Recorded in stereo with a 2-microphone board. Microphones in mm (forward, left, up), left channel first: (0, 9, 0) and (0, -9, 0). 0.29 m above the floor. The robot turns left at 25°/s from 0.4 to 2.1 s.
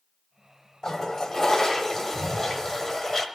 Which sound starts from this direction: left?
A toilet flushing, at 0.8 s.